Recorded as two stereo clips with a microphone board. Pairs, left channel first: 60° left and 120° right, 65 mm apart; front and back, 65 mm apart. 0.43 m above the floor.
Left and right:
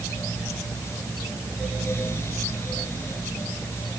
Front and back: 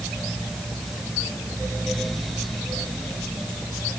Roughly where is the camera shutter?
No camera shutter in this recording.